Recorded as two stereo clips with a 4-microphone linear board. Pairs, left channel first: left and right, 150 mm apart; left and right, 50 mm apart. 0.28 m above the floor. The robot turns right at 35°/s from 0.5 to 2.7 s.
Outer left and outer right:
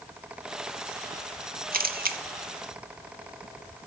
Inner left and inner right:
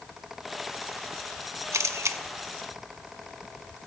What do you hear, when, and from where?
1.7 s a camera shutter: 75° right (ahead or behind), 0.6 m; by 2.2 s 80° right, 0.6 m